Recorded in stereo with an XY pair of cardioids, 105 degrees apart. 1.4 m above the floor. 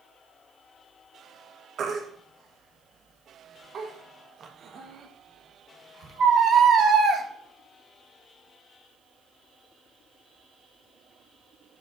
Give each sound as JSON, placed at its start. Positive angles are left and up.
{"t": 1.8, "sound": "a baby crying", "azimuth_deg": -45, "distance_m": 1.3}